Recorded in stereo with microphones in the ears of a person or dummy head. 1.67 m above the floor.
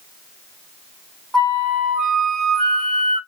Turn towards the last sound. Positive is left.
turn(degrees=5)  # may be behind; listen again after turning